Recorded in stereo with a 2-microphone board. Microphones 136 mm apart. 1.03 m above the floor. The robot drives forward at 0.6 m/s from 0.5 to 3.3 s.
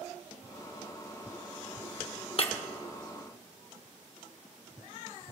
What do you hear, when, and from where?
2.4 s breaking glass: 40° left (ahead or behind), 0.9 m; by 2.5 s 45° left (ahead or behind), 0.9 m